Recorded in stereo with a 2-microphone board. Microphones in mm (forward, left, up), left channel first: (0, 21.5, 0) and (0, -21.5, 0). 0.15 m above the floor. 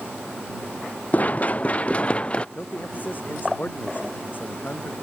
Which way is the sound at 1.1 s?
40° left (ahead or behind).